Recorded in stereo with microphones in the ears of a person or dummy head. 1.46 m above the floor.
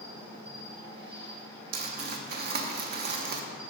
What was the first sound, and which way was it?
An insect, 35° right (ahead or behind).